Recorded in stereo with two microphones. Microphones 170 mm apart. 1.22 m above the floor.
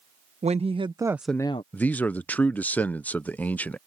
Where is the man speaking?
10° left (ahead or behind).